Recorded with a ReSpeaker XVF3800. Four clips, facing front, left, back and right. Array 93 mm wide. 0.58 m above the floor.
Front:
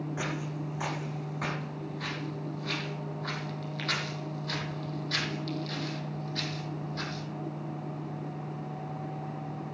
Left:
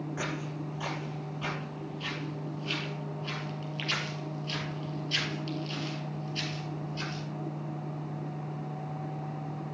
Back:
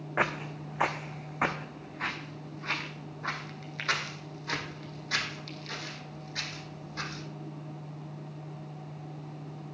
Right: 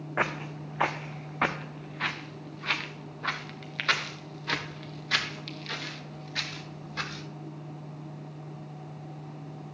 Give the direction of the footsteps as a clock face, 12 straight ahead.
5 o'clock.